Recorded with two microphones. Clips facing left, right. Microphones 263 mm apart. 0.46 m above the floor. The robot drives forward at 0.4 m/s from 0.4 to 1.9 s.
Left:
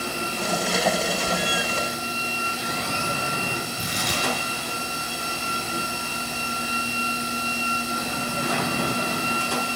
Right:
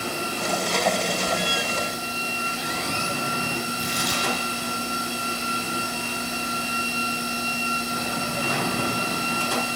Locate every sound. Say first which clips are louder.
3.8 s tearing paper: right 1 dB; 65° left (ahead or behind), 4 m